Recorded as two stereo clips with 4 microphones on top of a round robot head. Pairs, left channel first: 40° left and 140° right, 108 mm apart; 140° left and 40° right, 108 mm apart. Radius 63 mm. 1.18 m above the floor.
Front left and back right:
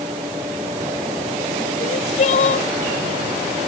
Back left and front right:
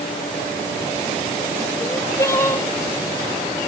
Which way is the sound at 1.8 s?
70° left.